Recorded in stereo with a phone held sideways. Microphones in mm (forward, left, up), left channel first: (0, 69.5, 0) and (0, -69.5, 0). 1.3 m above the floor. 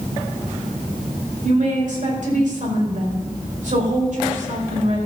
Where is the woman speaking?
65° right (ahead or behind), 5.5 m.